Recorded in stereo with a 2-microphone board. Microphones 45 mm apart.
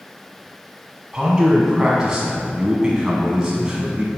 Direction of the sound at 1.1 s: 15° right (ahead or behind).